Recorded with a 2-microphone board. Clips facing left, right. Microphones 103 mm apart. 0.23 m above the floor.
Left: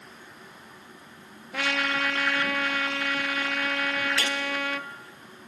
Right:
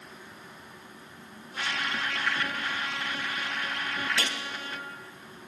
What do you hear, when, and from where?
1.5 s a trumpet: 90° left, 0.7 m
4.2 s a gunshot: 30° right (ahead or behind), 2.5 m